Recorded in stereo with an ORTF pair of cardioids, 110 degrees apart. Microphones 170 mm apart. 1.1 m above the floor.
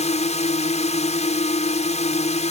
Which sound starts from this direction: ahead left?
A drone, at 0.0 s.